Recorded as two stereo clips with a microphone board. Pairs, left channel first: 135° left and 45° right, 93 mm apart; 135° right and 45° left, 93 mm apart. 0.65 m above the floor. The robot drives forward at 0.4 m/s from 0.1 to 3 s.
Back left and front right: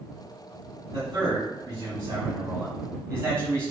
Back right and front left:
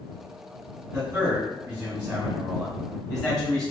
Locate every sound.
0.9 s a man speaking: 15° right, 1.3 m; by 3.7 s 50° right, 0.9 m